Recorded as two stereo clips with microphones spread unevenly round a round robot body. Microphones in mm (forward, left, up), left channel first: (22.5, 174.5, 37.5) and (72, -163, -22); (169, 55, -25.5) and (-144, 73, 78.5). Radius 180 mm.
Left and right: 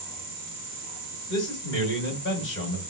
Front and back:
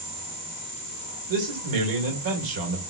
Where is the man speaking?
160° left, 2 m.